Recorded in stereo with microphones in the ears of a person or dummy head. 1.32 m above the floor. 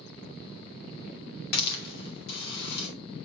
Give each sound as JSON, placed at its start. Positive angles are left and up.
{"t": 1.5, "sound": "a hiss", "side_deg": 65, "distance_m": 1.9}